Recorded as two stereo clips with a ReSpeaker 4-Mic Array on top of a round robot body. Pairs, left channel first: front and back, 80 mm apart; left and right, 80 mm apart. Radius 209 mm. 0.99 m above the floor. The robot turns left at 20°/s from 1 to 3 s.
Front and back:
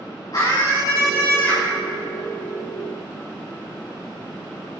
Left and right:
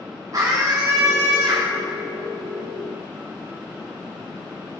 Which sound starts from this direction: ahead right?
A scream, at 0.3 s.